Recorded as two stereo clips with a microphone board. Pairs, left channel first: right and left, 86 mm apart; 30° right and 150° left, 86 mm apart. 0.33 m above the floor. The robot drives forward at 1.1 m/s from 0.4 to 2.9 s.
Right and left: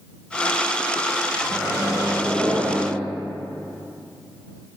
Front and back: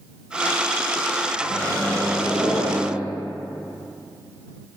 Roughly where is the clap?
No clap in this recording.